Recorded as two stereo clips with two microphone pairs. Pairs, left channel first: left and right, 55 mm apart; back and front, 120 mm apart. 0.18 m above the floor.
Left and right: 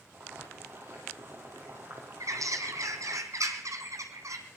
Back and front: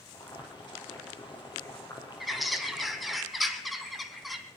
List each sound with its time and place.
0.1 s boiling: 135° right, 3 m
2.2 s a bird: 90° right, 1.3 m